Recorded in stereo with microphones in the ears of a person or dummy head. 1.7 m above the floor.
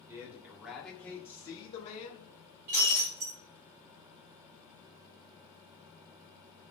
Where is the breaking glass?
35° right (ahead or behind), 1.4 m.